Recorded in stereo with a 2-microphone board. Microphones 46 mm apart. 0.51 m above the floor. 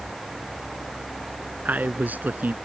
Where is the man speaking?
35° right (ahead or behind).